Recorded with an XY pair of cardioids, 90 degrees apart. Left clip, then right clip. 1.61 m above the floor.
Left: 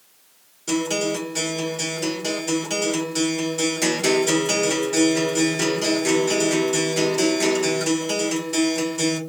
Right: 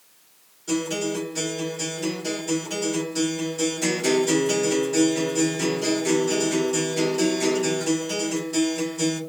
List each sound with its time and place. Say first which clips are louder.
0.7 s a guitar: left 3 dB; 65° left, 1.7 m